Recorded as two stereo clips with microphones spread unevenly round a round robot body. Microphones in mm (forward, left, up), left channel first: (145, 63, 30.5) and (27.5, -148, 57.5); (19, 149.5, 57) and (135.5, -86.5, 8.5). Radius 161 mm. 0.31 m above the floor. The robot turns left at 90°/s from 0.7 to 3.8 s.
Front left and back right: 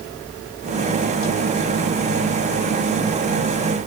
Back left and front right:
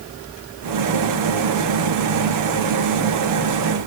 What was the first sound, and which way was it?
Only background noise.